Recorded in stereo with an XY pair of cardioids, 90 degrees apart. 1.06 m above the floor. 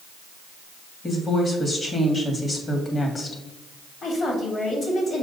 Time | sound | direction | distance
1.0 | a woman speaking | 35° left | 1.8 m
4.0 | a woman speaking | 50° left | 2.5 m